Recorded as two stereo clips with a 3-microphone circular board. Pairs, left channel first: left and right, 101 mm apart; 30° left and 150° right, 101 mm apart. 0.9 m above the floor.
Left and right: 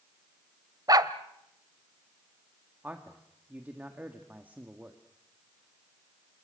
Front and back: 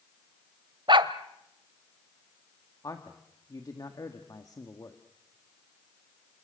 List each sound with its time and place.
0.9 s a dog barking: 130° right, 1.0 m
2.8 s a man speaking: 20° right, 1.7 m